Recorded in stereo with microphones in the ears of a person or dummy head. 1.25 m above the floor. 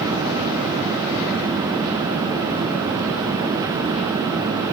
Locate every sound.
Only background noise.